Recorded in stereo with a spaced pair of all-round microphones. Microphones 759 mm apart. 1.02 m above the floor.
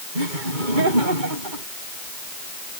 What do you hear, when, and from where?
0.1 s laughter: 80° right